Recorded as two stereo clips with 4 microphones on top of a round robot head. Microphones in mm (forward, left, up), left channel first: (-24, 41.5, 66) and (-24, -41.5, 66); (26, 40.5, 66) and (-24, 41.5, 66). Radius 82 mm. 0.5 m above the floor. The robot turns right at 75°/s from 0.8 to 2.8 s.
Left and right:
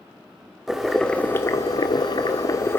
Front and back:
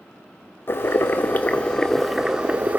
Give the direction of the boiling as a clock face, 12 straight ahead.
12 o'clock.